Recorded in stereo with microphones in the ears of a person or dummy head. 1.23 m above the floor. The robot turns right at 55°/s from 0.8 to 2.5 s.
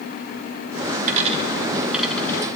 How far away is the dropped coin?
About 1.4 m.